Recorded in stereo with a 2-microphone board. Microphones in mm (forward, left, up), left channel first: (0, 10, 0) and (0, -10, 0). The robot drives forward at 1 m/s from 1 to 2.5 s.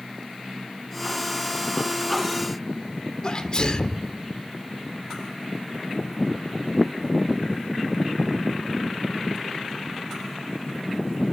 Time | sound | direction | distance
3.2 | a sneeze | 35° left (ahead or behind) | 1.3 m